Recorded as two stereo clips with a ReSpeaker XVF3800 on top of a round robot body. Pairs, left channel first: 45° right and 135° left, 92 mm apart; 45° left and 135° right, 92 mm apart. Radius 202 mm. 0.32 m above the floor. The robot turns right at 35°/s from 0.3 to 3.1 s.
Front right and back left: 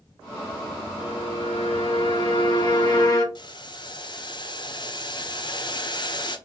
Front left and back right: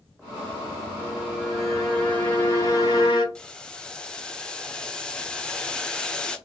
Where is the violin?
70° right, 3 m; by 3.2 s 5° left, 3 m.